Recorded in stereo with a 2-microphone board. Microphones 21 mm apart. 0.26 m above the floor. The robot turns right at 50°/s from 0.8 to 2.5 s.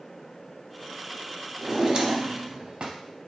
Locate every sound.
1.6 s a drawer: 155° right, 0.8 m; by 3.0 s 110° right, 0.8 m